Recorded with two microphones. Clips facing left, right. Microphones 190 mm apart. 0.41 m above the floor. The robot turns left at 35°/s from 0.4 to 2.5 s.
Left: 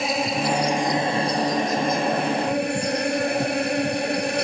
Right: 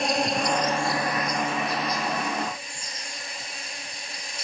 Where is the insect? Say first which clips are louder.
Left 1 dB; 175° left; by 4.4 s 105° left.